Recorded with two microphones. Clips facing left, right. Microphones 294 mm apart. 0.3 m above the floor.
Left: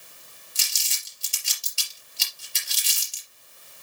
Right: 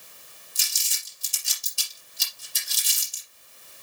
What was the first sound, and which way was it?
Crumpling, 80° left.